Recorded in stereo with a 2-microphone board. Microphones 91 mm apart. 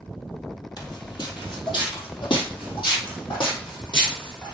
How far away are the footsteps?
About 2.5 m.